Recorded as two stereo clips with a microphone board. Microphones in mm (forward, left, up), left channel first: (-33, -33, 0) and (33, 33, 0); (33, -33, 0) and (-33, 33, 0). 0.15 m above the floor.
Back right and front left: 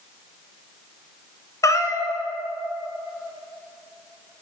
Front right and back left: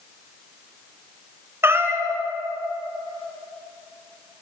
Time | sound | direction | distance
1.6 | a cat meowing | 175° right | 0.8 m